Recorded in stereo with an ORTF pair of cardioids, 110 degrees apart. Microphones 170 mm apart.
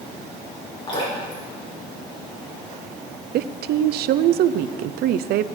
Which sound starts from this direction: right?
A woman speaking, at 3.3 s.